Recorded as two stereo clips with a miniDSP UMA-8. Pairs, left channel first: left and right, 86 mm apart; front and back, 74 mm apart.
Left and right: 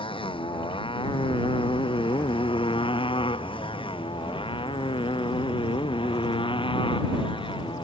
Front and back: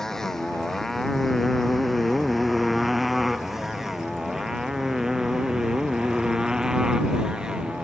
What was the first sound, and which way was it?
A motorcycle, 85° left.